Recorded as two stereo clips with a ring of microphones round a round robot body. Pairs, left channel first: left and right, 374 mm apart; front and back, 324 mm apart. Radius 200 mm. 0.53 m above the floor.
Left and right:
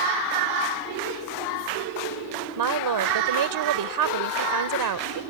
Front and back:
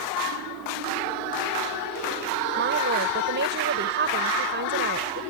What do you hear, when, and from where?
2.6 s a woman speaking: 120° right